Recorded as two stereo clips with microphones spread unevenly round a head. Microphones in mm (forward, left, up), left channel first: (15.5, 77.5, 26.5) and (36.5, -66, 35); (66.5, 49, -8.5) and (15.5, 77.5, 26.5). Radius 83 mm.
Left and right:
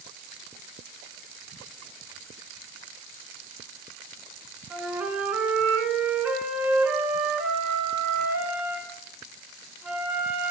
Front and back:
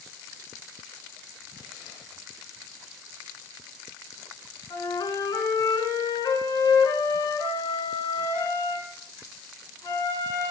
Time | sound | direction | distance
4.7 | a flute | straight ahead | 3 m